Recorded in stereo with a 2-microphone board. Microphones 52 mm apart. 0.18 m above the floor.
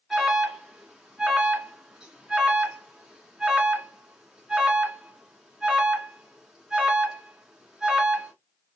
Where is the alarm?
15° right (ahead or behind), 1.8 m.